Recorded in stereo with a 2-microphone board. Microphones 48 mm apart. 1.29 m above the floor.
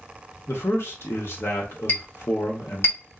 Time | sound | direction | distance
0.5 | a man speaking | 60° left (ahead or behind) | 0.9 m
1.9 | a clink | 50° left (ahead or behind) | 1.1 m